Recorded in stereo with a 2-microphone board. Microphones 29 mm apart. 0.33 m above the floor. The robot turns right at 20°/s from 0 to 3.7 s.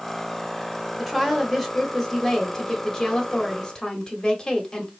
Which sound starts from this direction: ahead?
A woman speaking, at 1.0 s.